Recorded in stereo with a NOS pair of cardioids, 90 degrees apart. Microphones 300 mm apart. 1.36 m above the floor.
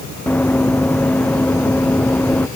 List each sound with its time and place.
0.3 s running footsteps: 5° left